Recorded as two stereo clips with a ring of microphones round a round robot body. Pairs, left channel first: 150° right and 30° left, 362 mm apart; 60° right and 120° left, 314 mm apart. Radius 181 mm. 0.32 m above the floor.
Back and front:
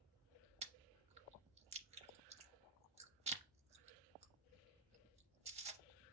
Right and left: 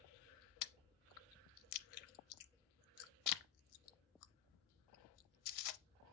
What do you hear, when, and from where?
0.6 s chewing: 40° right, 0.6 m